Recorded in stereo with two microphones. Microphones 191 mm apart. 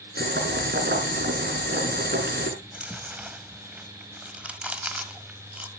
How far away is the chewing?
About 1.3 m.